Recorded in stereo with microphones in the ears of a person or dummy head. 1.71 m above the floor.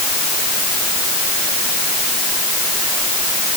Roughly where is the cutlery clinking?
No cutlery clinking in this recording.